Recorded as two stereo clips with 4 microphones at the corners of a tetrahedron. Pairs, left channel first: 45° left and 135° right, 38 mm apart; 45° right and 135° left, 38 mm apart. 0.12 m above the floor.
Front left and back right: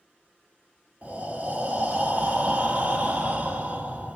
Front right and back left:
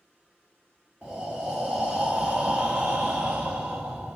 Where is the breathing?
165° right, 1.0 m.